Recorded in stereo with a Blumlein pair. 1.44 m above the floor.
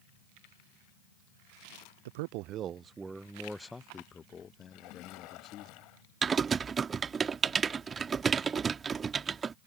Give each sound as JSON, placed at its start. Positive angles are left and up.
{"t": 2.0, "sound": "a man speaking", "azimuth_deg": -55}
{"t": 4.7, "sound": "a splash", "azimuth_deg": 40}
{"t": 6.2, "sound": "typing on a keyboard", "azimuth_deg": -20}